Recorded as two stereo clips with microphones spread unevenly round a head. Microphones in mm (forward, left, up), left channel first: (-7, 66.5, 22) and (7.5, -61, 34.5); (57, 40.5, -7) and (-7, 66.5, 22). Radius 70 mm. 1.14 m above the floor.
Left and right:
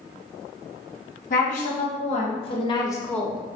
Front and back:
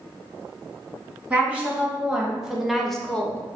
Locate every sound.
1.3 s a woman speaking: 80° left, 1.7 m; by 3.4 s straight ahead, 0.7 m